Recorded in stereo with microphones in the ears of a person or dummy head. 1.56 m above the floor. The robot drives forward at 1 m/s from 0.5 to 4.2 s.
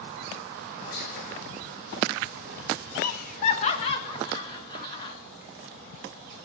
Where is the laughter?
60° left (ahead or behind), 1.0 m; by 5.2 s 30° left (ahead or behind), 1.8 m.